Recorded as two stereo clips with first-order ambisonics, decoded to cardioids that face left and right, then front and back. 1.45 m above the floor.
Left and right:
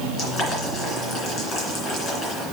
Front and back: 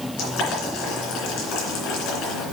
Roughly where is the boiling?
Ahead left.